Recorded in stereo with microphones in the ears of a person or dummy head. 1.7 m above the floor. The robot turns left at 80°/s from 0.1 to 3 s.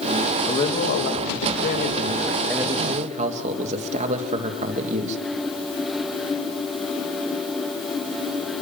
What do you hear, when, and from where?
0.5 s a man speaking: 165° left, 3 m; by 5.2 s 40° right, 3 m